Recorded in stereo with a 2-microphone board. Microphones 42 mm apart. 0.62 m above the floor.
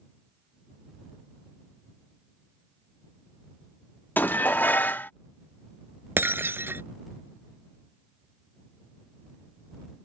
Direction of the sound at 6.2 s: 65° right (ahead or behind).